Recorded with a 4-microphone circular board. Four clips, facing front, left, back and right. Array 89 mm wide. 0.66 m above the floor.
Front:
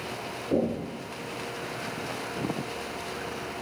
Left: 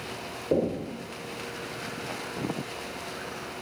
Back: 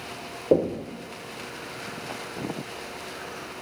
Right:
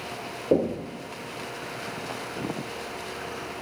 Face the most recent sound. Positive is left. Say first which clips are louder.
# right 3 dB, back 5 dB
turn(degrees=-155)